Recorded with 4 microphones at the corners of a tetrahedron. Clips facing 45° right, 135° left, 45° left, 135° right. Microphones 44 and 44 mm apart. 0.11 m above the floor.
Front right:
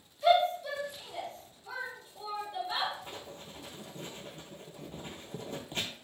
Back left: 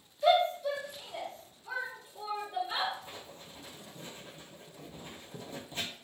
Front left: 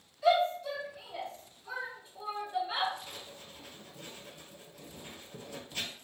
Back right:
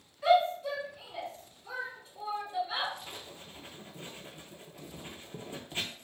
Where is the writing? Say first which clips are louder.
Front right 3 dB, back right 1 dB; 70° right, 0.5 m.